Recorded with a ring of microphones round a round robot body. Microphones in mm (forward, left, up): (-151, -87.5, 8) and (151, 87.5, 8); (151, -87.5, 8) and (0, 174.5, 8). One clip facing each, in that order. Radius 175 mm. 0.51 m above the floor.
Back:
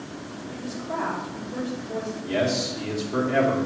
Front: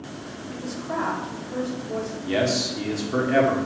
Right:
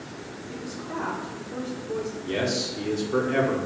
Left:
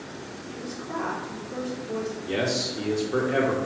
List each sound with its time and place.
0.5 s a woman speaking: 20° left, 1.2 m
2.2 s a man speaking: 25° left, 1.1 m